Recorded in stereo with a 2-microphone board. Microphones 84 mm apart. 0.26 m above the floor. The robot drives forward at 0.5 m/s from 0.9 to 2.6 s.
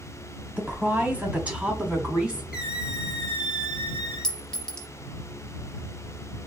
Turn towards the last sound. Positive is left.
turn(degrees=10)  # may be behind; listen again after turning